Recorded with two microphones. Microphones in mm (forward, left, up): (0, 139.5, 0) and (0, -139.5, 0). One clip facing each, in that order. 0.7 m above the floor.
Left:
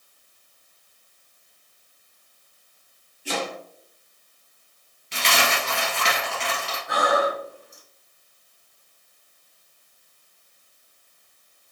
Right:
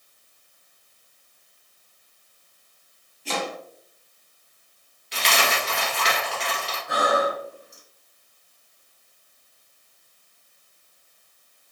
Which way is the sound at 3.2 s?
10° left (ahead or behind).